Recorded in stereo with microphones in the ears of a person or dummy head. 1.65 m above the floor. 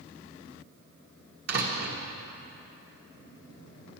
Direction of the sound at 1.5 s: 50° right (ahead or behind).